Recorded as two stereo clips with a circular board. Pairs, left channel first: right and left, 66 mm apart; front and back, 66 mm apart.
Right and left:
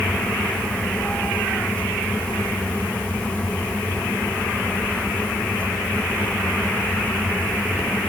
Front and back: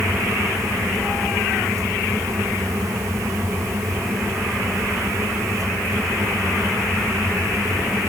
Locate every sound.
Only background noise.